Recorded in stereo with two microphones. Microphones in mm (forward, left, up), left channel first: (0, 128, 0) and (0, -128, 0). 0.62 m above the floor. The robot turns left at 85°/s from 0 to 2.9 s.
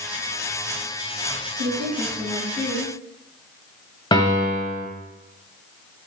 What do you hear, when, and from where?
1.6 s a woman speaking: 130° right, 4.5 m; by 2.9 s 120° left, 4.5 m
4.1 s a piano: 20° left (ahead or behind), 2.0 m